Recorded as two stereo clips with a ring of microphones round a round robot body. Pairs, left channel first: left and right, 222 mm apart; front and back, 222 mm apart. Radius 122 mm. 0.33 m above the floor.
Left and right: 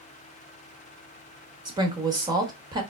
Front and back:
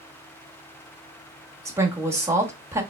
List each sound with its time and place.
1.6 s a woman speaking: 120° right, 0.9 m